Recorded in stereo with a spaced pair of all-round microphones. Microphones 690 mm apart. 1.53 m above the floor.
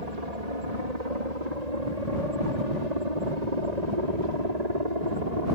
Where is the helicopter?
65° right (ahead or behind); by 5.5 s 70° right (ahead or behind).